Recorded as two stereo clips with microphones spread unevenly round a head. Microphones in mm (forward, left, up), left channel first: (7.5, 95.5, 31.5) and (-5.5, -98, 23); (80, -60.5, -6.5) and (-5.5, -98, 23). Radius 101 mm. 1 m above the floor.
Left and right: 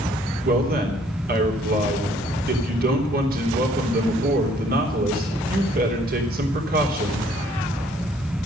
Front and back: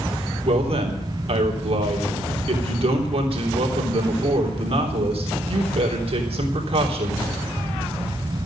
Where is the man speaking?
135° right, 3.5 m.